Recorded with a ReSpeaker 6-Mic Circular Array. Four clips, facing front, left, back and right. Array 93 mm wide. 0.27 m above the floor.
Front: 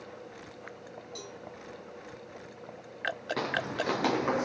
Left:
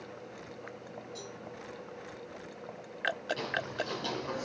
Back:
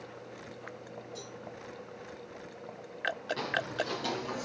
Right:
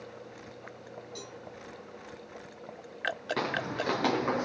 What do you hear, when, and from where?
1.1 s a cowbell: 35° right, 3 m
3.4 s footsteps: 60° right, 1.8 m; by 4.4 s 35° right, 1.0 m